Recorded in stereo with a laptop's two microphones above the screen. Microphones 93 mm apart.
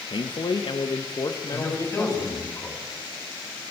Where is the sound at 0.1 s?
60° left (ahead or behind), 0.7 m; by 2.4 s 25° left (ahead or behind), 1.2 m.